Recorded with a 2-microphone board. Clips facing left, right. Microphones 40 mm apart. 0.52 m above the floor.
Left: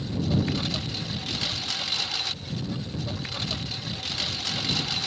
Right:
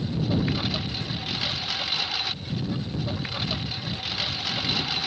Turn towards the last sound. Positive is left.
turn(degrees=-15)  # may be behind; listen again after turning